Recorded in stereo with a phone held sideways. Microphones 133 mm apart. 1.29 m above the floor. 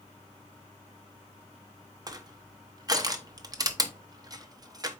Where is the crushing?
30° right (ahead or behind), 0.6 m.